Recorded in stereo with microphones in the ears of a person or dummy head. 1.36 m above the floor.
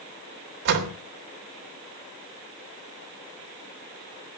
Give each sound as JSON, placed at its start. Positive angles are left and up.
{"t": 0.7, "sound": "a door slam", "side_deg": -65, "distance_m": 3.0}